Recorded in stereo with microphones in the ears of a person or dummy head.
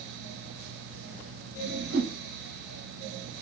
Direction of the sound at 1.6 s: 80° right.